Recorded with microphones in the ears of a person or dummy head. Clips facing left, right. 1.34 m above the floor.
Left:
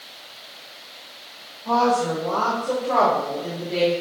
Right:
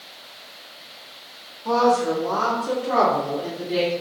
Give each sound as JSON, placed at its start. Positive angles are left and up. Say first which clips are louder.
{"t": 1.6, "sound": "a woman speaking", "louder": "right 1 dB", "side_deg": -40, "distance_m": 1.9}